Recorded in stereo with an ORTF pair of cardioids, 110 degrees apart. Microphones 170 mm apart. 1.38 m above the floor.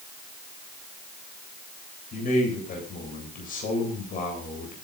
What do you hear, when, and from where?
2.1 s a man speaking: 55° left, 8 m